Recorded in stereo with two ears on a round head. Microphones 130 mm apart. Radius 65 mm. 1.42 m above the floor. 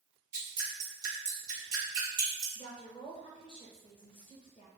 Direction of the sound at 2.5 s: 40° left (ahead or behind).